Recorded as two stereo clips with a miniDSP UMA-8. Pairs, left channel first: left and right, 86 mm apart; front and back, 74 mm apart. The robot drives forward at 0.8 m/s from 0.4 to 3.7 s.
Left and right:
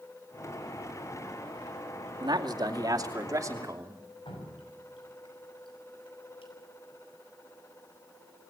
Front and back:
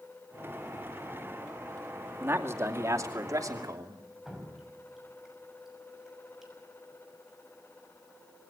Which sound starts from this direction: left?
Dripping, at 4.2 s.